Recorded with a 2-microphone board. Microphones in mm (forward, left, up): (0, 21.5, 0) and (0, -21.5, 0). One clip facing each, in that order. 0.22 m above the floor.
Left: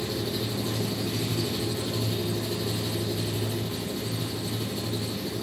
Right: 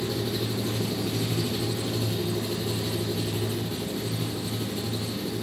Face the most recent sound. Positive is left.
turn(degrees=-45)  # may be behind; listen again after turning